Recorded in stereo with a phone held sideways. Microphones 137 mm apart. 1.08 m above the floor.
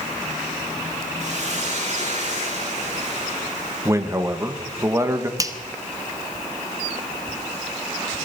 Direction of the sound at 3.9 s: 20° right (ahead or behind).